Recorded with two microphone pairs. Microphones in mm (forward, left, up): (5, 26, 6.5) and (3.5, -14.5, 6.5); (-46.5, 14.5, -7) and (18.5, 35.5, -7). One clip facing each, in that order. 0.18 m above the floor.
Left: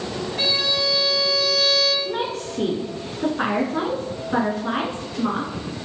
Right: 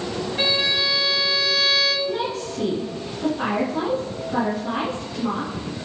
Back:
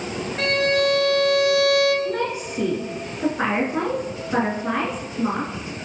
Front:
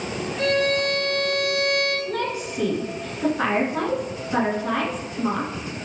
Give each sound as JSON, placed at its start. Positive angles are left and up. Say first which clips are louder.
{"t": 0.4, "sound": "a violin", "louder": "right 1 dB, back 1 dB", "azimuth_deg": -160, "distance_m": 2.0}
{"t": 2.0, "sound": "a woman speaking", "louder": "right 1 dB, back 2 dB", "azimuth_deg": 125, "distance_m": 2.5}